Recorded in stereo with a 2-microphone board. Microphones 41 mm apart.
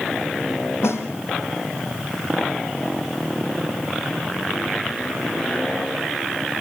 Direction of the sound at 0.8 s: 85° left.